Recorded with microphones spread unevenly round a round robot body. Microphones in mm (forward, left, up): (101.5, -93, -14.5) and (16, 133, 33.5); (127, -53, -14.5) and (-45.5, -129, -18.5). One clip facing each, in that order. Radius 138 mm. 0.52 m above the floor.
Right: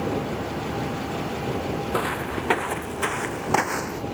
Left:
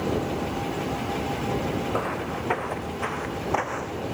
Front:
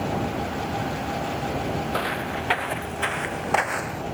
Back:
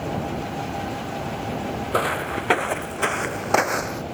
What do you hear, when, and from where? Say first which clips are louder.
1.9 s footsteps: right 2 dB, back 3 dB; 125° right; by 4.0 s 120° right